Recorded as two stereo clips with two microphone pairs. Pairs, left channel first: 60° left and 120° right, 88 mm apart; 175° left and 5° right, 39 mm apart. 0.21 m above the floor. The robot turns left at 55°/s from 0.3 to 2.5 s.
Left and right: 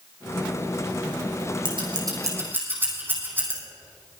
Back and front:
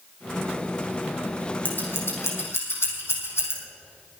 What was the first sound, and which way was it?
Scissors, 140° right.